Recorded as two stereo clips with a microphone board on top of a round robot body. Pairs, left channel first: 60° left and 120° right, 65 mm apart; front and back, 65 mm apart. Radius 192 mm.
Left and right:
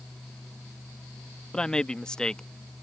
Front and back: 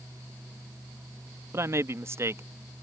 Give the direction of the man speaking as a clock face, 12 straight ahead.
7 o'clock.